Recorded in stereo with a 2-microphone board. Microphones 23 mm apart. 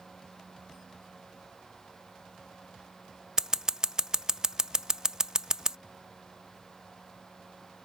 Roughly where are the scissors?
Right.